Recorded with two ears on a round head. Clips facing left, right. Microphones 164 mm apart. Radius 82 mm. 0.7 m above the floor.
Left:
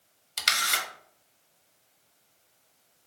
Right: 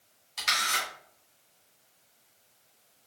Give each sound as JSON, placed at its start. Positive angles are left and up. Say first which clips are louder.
{"t": 0.4, "sound": "a camera shutter", "louder": "even", "side_deg": 70, "distance_m": 0.8}